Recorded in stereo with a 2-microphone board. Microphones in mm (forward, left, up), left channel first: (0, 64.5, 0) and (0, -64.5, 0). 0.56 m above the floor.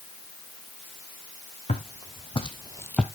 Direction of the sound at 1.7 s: 60° left (ahead or behind).